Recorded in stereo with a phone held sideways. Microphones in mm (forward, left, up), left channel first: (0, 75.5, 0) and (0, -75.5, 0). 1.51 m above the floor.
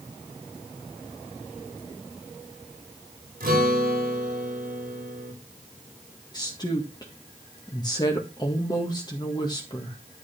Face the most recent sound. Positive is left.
turn(degrees=25)  # may be behind; listen again after turning